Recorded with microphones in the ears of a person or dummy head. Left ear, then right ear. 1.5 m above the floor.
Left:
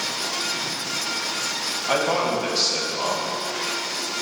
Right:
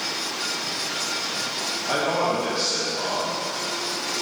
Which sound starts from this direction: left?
A man speaking, at 1.9 s.